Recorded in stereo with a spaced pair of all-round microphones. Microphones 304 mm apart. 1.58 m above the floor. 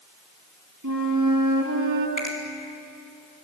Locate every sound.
0.8 s a flute: 75° right (ahead or behind), 3.5 m
2.2 s a finger snap: 75° left (ahead or behind), 5 m